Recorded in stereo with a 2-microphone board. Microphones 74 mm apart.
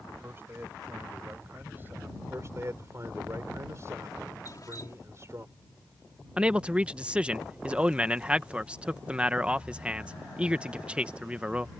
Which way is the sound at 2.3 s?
35° right (ahead or behind).